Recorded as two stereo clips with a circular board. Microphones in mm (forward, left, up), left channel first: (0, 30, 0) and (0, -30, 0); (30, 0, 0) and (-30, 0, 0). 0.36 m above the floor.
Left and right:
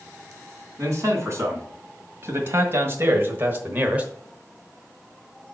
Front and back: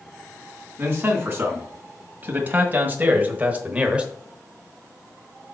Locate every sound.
0.8 s a man speaking: 130° right, 2.5 m; by 4.1 s 125° right, 0.9 m